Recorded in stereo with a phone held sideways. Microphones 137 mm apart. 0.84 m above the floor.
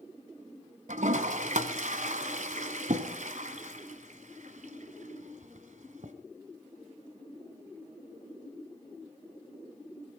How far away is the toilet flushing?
About 1.5 m.